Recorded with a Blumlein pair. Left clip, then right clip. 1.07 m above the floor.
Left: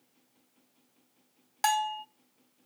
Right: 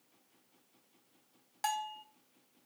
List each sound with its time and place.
1.6 s a bell: 25° left, 0.6 m